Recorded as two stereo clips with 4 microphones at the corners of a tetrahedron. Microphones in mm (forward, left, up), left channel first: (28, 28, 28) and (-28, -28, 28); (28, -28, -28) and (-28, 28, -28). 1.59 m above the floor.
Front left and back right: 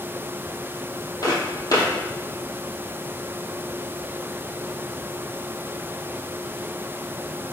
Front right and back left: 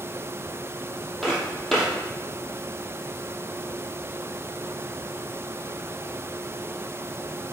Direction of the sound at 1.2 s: 35° left.